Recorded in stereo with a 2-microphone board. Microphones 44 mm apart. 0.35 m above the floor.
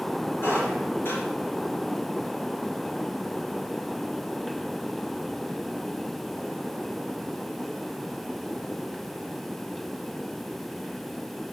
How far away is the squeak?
About 3 m.